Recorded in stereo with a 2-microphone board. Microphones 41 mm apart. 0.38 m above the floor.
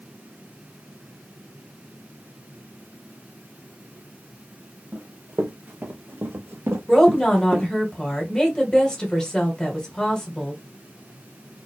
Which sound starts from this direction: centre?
A woman speaking, at 6.9 s.